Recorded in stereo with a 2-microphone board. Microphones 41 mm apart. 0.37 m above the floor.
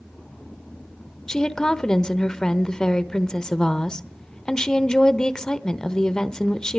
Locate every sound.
1.3 s a woman speaking: 20° left (ahead or behind), 0.9 m